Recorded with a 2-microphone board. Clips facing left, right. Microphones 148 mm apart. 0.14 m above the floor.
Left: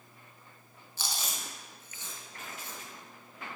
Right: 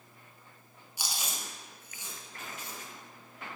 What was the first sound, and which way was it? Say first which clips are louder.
Chewing: even; 15° right (ahead or behind).